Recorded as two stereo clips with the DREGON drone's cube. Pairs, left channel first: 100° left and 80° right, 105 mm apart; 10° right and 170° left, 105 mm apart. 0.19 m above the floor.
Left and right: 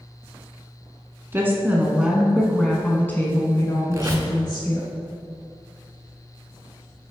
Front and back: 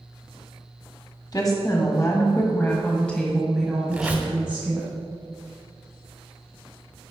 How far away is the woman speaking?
About 1.3 m.